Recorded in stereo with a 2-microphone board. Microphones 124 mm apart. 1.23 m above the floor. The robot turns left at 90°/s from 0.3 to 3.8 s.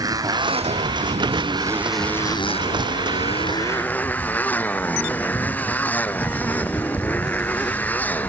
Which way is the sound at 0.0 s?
30° right.